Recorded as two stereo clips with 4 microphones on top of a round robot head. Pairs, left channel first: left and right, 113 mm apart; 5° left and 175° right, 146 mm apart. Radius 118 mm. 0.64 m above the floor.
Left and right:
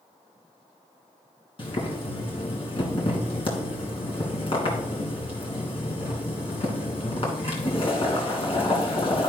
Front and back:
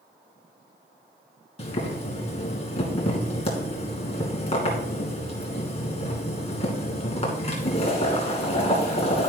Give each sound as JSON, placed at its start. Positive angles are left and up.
{"t": 1.6, "sound": "boiling", "azimuth_deg": 50, "distance_m": 2.5}